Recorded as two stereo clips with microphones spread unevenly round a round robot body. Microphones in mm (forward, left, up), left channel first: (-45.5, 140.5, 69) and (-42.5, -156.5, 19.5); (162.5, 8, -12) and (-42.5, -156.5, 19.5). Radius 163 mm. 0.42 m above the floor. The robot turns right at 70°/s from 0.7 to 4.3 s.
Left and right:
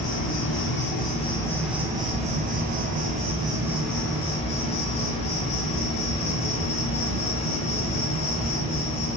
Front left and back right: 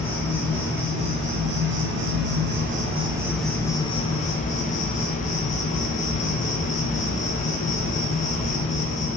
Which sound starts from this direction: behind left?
An insect, at 0.0 s.